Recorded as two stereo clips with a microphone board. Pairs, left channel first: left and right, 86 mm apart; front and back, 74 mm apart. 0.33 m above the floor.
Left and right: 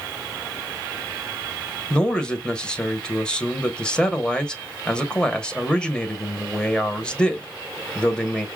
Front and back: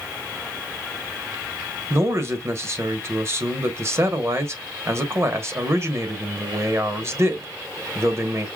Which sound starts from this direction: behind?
A man speaking, at 1.9 s.